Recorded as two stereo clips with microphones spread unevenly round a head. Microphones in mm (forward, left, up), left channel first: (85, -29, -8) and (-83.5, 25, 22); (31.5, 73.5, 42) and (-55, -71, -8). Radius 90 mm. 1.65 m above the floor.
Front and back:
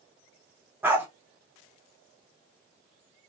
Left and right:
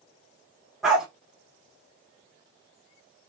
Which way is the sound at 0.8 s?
120° left.